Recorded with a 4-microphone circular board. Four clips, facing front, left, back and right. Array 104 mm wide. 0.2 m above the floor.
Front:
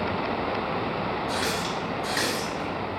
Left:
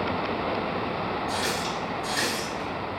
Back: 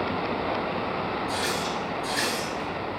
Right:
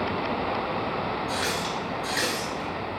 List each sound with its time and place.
1.3 s a running tap: 20° right, 2 m